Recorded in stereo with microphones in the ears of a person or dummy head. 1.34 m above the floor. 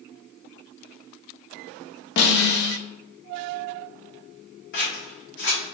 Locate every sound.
2.2 s a snare drum: 55° left (ahead or behind), 0.6 m
4.7 s scissors: 60° left (ahead or behind), 0.9 m